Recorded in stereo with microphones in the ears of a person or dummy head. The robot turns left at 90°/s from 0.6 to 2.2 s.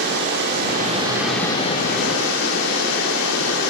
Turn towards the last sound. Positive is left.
turn(degrees=95)